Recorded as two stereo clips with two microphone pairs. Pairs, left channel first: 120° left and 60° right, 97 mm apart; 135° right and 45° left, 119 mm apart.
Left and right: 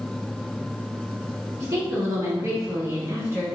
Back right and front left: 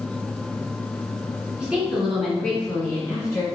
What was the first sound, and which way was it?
A woman speaking, 30° right.